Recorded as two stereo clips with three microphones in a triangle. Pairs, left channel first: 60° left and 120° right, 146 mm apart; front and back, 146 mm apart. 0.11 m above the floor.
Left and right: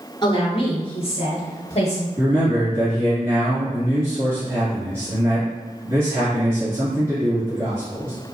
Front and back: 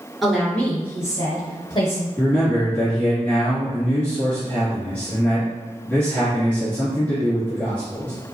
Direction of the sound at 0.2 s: 90° left.